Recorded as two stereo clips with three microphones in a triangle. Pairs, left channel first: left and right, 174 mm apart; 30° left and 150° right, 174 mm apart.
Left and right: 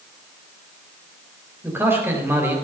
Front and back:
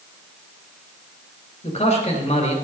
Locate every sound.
1.6 s a man speaking: 15° right, 4.5 m